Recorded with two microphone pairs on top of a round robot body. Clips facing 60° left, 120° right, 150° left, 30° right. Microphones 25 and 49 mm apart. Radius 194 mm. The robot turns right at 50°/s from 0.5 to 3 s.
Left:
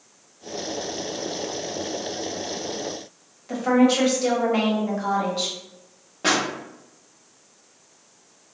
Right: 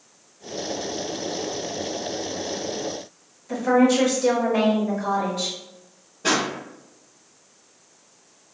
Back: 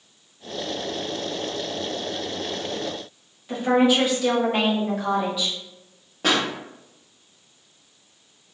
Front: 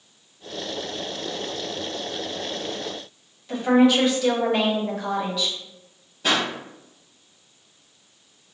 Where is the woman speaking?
75° left, 1.5 m.